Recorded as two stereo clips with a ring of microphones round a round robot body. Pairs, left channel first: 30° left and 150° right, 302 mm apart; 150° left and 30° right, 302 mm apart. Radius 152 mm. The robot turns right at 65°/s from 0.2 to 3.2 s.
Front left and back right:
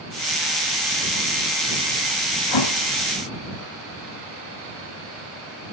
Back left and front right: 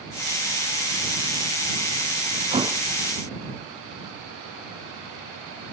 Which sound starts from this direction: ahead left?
A thud, at 2.5 s.